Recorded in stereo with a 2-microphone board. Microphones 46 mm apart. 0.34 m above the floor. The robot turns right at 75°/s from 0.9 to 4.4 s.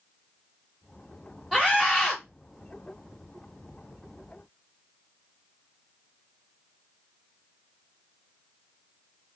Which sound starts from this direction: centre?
A scream, at 1.5 s.